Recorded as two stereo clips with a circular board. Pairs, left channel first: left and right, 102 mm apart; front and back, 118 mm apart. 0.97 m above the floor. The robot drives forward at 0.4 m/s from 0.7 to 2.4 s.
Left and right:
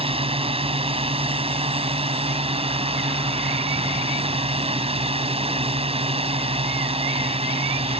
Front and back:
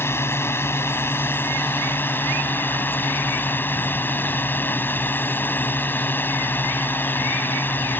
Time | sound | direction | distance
0.0 | a drone | 70° right | ?